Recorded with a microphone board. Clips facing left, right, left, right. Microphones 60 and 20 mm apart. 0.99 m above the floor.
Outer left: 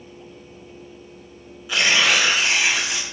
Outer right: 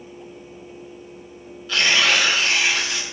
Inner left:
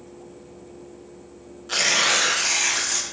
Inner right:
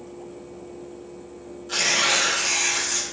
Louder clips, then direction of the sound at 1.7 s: Even, inner left 1 dB; 15° left (ahead or behind).